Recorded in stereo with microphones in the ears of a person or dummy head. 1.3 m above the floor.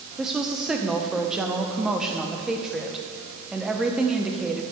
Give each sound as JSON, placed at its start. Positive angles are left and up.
{"t": 0.2, "sound": "a woman speaking", "side_deg": -5, "distance_m": 0.6}